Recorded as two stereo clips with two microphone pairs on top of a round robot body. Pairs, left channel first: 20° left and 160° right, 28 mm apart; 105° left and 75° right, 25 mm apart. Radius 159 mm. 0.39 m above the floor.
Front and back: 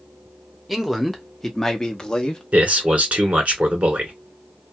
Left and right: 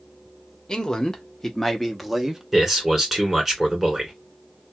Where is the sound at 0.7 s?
125° left, 1.3 m; by 2.4 s 10° left, 1.0 m.